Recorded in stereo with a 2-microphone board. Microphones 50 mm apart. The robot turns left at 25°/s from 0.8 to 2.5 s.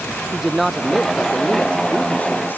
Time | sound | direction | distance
0.3 | a man speaking | straight behind | ?